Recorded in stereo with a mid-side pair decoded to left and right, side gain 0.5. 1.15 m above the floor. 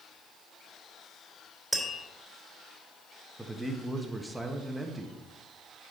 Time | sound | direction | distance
1.7 | tapping | 10° right | 3 m
3.4 | a man speaking | 10° right | 1.6 m